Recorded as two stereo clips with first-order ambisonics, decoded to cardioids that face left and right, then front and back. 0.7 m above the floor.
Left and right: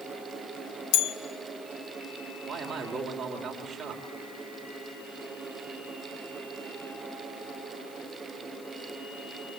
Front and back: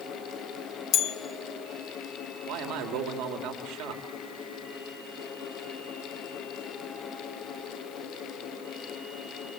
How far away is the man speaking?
About 3 m.